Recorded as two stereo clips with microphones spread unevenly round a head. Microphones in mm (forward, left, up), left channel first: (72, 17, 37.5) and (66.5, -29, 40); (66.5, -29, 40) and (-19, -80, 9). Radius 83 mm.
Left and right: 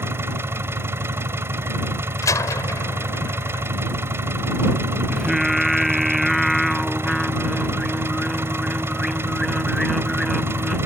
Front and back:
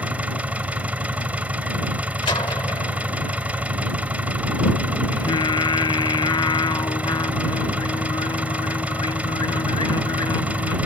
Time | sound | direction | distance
0.0 | an engine running | 70° right | ?
2.2 | a door slam | 95° left | ?
5.1 | singing | 10° right | ?